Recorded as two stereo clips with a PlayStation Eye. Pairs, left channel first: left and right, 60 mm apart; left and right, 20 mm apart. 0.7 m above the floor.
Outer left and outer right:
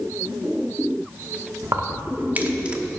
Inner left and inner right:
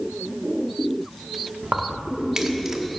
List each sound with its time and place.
1.6 s keys jangling: 55° right (ahead or behind), 1.1 m; by 2.9 s 10° right (ahead or behind), 1.1 m